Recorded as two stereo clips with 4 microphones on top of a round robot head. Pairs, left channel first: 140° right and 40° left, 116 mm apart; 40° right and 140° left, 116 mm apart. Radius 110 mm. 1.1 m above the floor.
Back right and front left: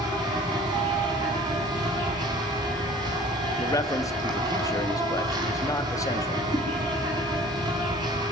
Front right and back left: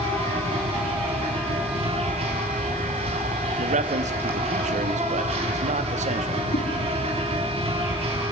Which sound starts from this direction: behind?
A man speaking, at 3.6 s.